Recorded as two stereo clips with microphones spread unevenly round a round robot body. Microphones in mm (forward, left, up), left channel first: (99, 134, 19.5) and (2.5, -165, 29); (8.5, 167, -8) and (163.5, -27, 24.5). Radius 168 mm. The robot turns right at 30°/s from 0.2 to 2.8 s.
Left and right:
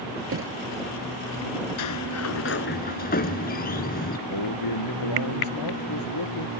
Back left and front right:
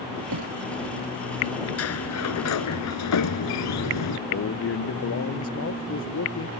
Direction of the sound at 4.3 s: 100° left.